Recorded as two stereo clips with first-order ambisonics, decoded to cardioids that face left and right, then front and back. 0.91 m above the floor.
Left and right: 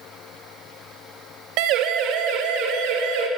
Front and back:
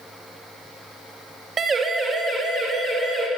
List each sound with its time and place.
1.6 s a siren: 110° right, 2 m; by 3.3 s 105° right, 4 m